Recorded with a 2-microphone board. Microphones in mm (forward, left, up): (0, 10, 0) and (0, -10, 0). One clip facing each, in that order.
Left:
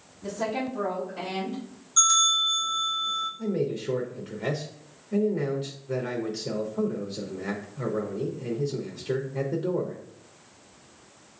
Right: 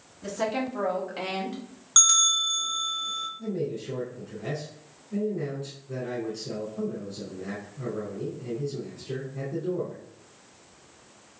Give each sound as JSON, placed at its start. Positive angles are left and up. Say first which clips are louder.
{"t": 0.2, "sound": "a woman speaking", "louder": "right 1 dB", "side_deg": -60, "distance_m": 1.9}
{"t": 2.0, "sound": "a bell", "louder": "even", "side_deg": -75, "distance_m": 1.7}
{"t": 3.4, "sound": "a man speaking", "louder": "left 3 dB", "side_deg": 60, "distance_m": 0.8}